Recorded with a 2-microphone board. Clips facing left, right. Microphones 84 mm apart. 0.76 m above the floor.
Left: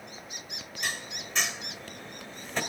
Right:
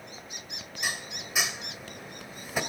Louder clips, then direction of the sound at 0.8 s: Right 1 dB; 10° right (ahead or behind).